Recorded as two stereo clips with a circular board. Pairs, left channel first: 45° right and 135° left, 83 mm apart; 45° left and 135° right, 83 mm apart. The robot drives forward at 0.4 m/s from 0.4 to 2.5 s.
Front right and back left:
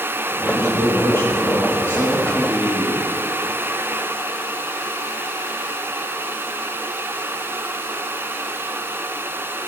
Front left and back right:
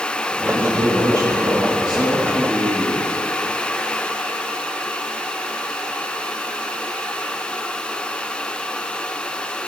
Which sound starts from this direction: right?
A man speaking, at 0.4 s.